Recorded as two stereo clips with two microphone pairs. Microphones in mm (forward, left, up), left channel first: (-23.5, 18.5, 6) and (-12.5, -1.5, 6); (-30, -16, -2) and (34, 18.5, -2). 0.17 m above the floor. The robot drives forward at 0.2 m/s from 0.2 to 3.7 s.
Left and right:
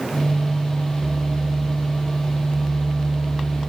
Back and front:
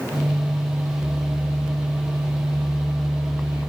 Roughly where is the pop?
No pop in this recording.